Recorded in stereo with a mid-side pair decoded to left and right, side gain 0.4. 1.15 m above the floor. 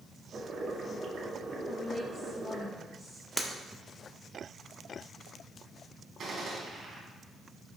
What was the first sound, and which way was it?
Boiling, 55° right.